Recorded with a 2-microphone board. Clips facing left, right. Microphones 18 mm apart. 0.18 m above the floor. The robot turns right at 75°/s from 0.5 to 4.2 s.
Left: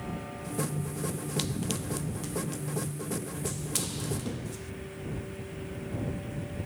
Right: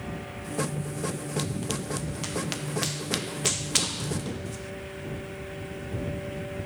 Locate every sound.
1.4 s running footsteps: 10° left (ahead or behind); by 4.7 s 10° right (ahead or behind)